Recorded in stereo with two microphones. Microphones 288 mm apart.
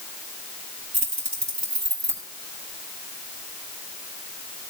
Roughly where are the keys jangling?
Right.